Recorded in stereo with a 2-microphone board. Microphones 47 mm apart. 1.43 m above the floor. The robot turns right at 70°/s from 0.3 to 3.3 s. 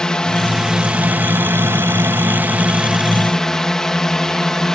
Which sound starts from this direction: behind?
A drone, at 0.0 s.